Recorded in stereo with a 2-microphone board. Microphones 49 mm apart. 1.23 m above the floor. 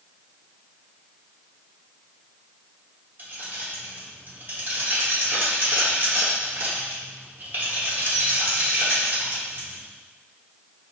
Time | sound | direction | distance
3.2 | keys jangling | 40° right (ahead or behind) | 1.2 m